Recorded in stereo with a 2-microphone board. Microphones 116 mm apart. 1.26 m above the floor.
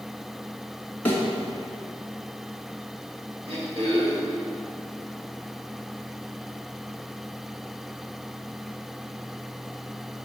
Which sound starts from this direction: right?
Throat clearing, at 3.5 s.